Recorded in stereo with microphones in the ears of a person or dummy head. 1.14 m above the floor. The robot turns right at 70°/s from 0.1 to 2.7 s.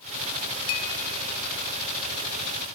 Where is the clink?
80° left, 1.2 m; by 0.9 s 85° left, 1.2 m.